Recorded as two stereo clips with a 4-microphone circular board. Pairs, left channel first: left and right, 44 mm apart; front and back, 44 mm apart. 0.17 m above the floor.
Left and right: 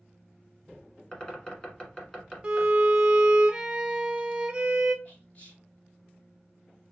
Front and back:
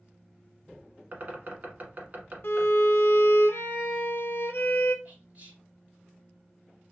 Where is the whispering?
130° left, 3 m.